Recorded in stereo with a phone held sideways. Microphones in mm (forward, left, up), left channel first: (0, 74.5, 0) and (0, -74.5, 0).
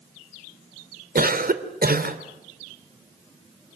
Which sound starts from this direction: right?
A cough, at 1.1 s.